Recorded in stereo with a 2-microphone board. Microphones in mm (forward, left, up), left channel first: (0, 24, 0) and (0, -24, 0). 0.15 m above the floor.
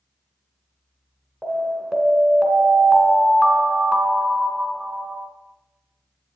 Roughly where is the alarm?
Centre.